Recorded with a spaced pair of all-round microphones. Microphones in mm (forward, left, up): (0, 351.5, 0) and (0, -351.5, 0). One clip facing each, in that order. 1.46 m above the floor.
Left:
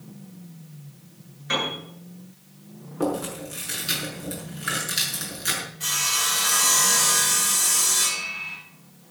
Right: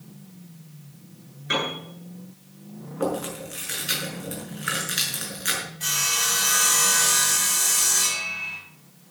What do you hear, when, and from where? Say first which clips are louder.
1.5 s a piano: right 1 dB; 30° left (ahead or behind), 9 m
3.0 s chewing: left 1 dB; 65° left (ahead or behind), 6 m
5.8 s sawing: right 1 dB; 40° left (ahead or behind), 9 m